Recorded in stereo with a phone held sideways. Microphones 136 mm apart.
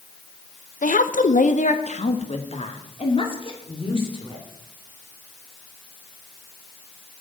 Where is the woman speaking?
70° left (ahead or behind), 0.9 m; by 4.5 s 35° left (ahead or behind), 3.5 m.